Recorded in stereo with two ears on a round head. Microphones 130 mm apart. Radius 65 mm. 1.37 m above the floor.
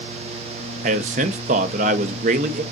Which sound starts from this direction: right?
A man speaking, at 0.8 s.